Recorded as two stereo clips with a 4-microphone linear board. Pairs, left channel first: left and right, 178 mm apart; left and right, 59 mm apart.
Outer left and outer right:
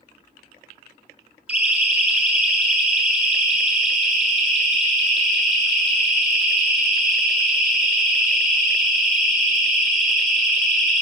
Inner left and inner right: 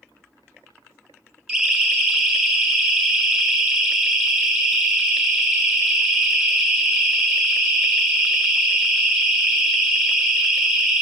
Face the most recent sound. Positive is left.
turn(degrees=0)  # may be behind; listen again after turning